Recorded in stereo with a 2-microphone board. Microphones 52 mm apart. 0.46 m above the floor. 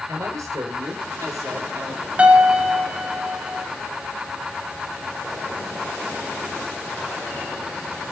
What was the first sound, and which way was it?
A man speaking, 80° right.